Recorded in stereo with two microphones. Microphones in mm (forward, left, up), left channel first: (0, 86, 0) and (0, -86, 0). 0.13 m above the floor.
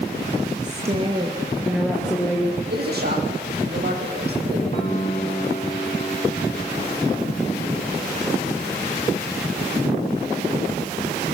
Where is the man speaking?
60° right (ahead or behind), 6 m.